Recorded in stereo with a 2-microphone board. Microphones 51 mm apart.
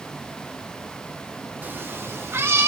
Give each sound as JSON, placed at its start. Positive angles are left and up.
{"t": 1.6, "sound": "a cat meowing", "side_deg": -35, "distance_m": 0.6}